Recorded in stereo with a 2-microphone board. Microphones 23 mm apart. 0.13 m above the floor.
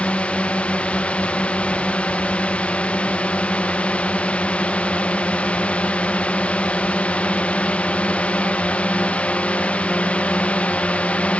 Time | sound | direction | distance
0.0 | a drone | 60° left (ahead or behind) | ?